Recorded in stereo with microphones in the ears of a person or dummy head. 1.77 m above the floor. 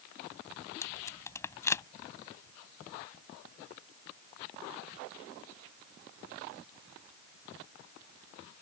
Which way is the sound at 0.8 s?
20° left (ahead or behind).